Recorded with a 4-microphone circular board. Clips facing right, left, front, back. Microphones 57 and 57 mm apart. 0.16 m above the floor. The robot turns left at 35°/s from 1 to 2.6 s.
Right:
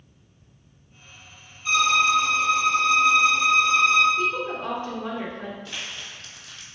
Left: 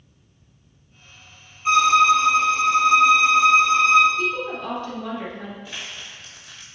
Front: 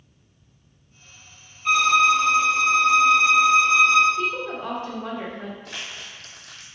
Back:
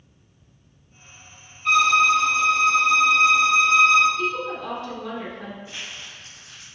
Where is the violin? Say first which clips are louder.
Left 5 dB, even; 85° left, 1.2 m; by 4.1 s 55° left, 1.2 m.